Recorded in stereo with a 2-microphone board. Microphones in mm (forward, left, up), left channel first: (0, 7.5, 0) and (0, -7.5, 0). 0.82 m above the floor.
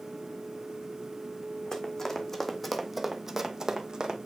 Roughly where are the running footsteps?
Left.